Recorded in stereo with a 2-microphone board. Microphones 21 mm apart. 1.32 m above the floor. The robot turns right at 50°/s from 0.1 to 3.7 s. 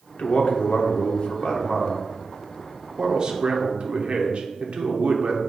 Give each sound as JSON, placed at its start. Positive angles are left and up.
{"t": 0.2, "sound": "a man speaking", "azimuth_deg": 60, "distance_m": 0.7}